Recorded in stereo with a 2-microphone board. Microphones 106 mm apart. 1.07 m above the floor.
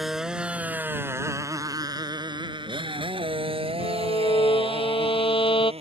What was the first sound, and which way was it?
A motorcycle, 5° right (ahead or behind).